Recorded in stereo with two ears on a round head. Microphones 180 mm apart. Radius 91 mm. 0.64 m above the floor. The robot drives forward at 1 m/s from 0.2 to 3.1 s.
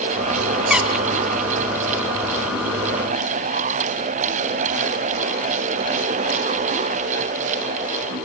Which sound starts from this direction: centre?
A squeak, at 0.7 s.